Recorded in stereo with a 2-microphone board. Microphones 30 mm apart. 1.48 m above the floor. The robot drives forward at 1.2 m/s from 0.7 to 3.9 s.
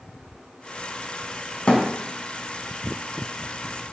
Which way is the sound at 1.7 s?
40° left (ahead or behind).